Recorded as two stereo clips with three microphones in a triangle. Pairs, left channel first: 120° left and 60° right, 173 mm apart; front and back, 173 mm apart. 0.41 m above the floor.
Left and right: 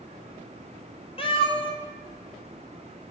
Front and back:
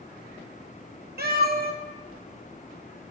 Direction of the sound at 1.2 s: 175° left.